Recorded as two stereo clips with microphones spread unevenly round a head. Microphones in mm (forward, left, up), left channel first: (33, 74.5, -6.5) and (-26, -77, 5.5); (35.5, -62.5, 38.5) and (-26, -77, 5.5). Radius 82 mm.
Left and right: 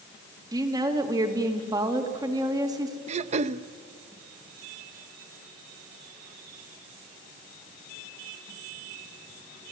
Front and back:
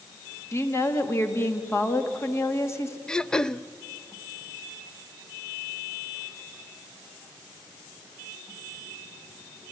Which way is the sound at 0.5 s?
40° right.